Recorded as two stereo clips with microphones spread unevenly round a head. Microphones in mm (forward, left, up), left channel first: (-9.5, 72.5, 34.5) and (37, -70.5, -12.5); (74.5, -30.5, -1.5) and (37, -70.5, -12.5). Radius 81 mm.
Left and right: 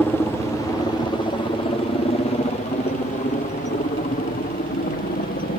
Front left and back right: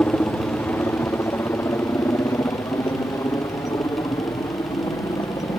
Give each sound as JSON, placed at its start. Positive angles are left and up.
{"t": 0.0, "sound": "a helicopter", "azimuth_deg": 10}